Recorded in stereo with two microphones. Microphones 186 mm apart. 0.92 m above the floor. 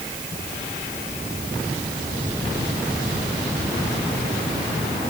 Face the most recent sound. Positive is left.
No sound to turn to.